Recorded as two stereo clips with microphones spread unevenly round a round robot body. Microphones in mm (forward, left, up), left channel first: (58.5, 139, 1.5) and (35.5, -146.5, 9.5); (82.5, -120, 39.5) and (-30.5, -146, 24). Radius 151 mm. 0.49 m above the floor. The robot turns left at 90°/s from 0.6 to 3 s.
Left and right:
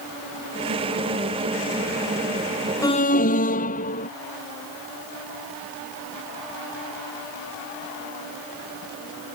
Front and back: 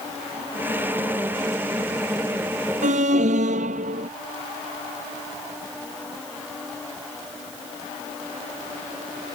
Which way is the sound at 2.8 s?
165° left.